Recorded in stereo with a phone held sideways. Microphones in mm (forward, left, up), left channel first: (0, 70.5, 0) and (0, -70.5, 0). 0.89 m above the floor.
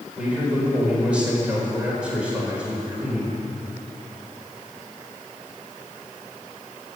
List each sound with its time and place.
0.2 s a man speaking: 10° right (ahead or behind), 4 m